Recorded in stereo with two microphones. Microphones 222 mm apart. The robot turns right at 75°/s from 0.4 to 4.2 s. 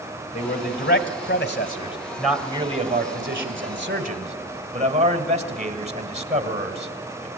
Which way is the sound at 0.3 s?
40° left.